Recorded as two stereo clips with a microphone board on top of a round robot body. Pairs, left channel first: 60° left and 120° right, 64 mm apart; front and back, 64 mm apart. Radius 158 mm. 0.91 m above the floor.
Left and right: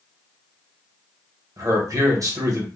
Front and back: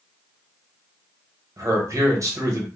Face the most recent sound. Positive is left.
turn(degrees=-145)